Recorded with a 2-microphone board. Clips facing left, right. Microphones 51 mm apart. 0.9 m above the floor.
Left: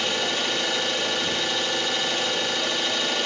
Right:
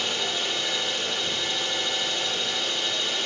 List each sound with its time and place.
0.0 s an engine running: 70° left (ahead or behind), 1.3 m